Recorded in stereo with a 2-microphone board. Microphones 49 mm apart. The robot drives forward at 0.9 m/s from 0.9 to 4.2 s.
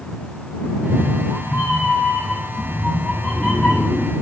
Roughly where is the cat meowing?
Left.